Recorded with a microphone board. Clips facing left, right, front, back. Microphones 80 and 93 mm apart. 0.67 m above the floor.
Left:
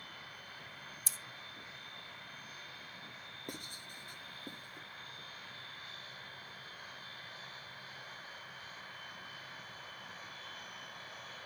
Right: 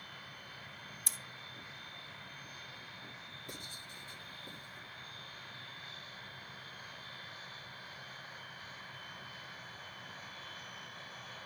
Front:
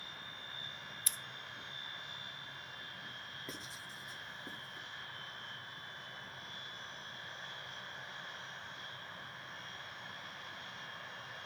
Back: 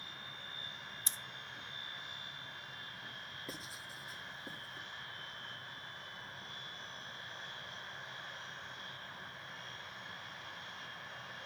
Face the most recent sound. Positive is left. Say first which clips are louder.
# left 4 dB, back 1 dB
turn(degrees=95)